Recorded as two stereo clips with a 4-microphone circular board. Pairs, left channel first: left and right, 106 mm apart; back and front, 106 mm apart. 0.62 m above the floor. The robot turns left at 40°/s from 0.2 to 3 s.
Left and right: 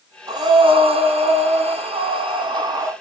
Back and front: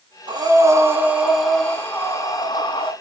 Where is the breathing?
40° right, 5.5 m; by 2.9 s 145° right, 5.5 m.